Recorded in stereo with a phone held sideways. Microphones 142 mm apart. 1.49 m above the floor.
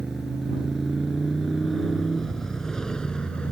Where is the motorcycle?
5° right (ahead or behind); by 3.5 s 5° left (ahead or behind).